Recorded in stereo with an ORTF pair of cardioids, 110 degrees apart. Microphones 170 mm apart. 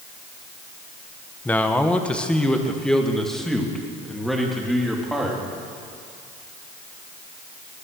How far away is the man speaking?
About 1.2 m.